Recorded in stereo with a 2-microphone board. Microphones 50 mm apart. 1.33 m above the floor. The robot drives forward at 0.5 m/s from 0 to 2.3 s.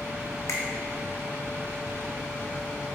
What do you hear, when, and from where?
0.5 s a finger snap: 65° left (ahead or behind), 0.6 m